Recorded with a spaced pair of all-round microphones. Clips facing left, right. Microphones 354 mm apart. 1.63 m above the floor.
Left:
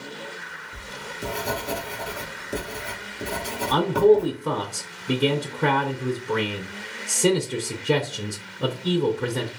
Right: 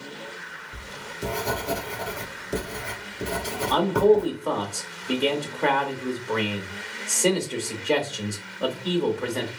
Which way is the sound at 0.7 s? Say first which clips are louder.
Left 1 dB; centre (ahead or behind).